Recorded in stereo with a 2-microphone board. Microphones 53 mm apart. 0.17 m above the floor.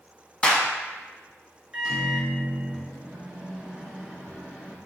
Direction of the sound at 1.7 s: 10° right (ahead or behind).